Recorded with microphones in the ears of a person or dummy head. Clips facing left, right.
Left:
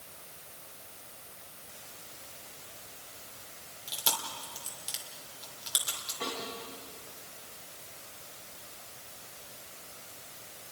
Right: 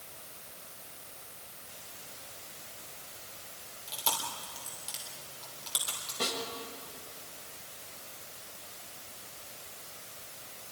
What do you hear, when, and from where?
3.9 s chewing: 15° left (ahead or behind), 3 m
6.2 s a snare drum: 60° right (ahead or behind), 6.5 m